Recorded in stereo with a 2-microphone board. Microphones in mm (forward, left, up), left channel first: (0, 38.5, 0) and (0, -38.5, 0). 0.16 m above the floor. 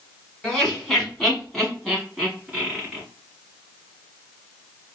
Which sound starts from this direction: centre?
Laughter, at 0.4 s.